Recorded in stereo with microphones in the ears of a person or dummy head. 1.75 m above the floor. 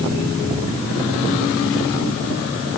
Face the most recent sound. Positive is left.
No sound to turn to.